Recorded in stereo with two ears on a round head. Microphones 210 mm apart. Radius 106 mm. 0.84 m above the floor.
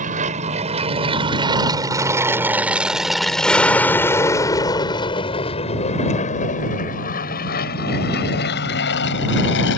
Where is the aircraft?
35° right (ahead or behind); by 9.8 s 50° left (ahead or behind).